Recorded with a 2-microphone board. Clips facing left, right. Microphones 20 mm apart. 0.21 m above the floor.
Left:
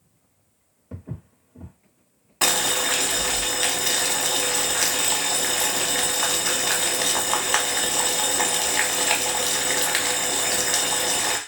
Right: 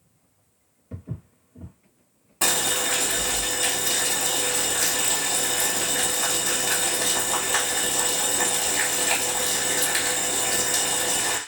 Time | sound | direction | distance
0.9 | footsteps | 70° left (ahead or behind) | 1.1 m
2.4 | boiling | 40° left (ahead or behind) | 0.7 m